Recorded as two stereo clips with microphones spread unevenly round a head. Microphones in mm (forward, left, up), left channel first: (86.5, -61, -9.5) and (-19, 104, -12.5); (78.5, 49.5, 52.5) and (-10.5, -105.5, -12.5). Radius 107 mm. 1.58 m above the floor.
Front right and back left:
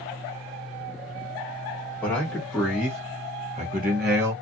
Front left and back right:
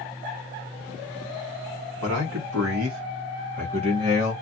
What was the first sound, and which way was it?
A man speaking, 140° right.